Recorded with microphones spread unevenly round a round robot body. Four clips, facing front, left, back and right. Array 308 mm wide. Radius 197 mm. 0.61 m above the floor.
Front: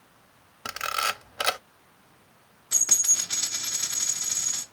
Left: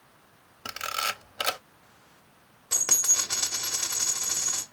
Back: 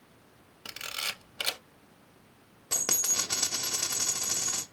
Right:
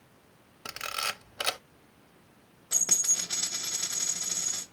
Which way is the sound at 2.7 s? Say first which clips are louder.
Left 5 dB, back 4 dB; 160° left.